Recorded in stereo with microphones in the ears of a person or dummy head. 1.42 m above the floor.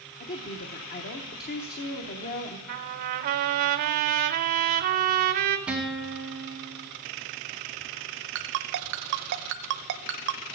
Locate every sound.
0.2 s a woman speaking: 50° left (ahead or behind), 0.9 m
2.7 s a trumpet: 40° right (ahead or behind), 0.7 m
5.7 s a guitar: 10° right (ahead or behind), 1.9 m
8.3 s a ringtone: 55° right (ahead or behind), 0.7 m